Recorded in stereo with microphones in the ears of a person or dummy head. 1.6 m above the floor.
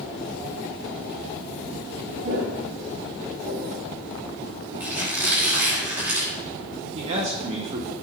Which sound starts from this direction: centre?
A squeak, at 4.8 s.